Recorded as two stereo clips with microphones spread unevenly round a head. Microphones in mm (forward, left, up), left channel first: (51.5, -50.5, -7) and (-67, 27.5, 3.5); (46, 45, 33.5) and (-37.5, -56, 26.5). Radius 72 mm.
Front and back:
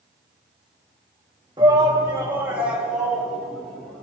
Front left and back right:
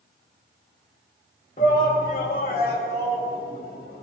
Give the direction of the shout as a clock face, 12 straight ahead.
9 o'clock.